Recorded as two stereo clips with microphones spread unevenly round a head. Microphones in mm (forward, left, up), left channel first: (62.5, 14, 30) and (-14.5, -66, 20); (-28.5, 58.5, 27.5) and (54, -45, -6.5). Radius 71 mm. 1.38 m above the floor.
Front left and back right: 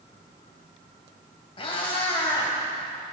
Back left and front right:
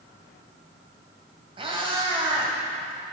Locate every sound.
1.6 s a cat meowing: 10° left, 3.5 m